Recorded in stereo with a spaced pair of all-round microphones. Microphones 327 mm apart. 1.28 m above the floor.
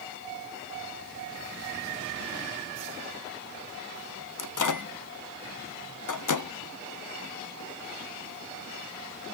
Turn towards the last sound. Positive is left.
turn(degrees=65)  # may be behind; listen again after turning